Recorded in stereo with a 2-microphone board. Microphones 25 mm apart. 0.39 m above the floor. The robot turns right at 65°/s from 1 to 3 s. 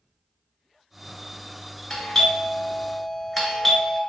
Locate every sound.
1.9 s a doorbell: 20° left (ahead or behind), 1.5 m; by 4.0 s centre (ahead or behind), 1.5 m